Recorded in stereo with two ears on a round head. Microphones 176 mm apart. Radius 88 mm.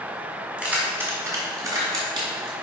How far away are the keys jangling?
About 2.0 m.